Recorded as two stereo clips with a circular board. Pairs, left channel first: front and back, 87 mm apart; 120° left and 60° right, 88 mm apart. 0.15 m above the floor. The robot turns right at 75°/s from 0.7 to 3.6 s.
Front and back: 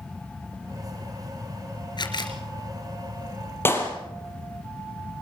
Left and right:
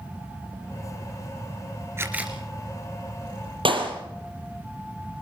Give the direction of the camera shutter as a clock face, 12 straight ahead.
12 o'clock.